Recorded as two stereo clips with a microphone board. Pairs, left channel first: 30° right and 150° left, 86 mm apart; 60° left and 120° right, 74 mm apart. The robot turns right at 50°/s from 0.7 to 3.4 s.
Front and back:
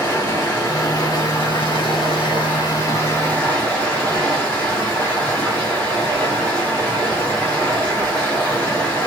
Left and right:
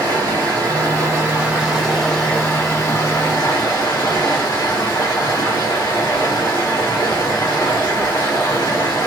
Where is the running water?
90° right, 1.5 m; by 9.1 s 45° left, 1.5 m.